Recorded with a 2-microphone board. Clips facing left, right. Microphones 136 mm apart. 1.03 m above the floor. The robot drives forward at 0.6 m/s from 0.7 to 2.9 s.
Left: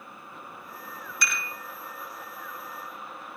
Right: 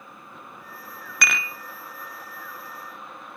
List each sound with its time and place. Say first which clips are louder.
1.2 s dishes clattering: right 5 dB; 70° right (ahead or behind), 0.5 m; by 1.5 s 80° right, 0.5 m